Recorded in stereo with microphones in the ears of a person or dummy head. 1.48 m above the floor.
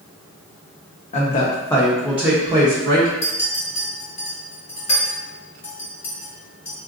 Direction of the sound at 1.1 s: 35° left (ahead or behind).